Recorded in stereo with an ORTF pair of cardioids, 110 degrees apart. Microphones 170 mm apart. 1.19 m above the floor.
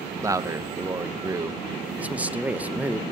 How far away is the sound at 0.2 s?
About 0.7 m.